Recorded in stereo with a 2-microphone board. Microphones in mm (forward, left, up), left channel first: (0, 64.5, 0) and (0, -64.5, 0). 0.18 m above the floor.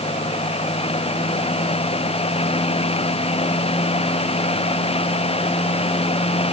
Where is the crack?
I don't hear a crack.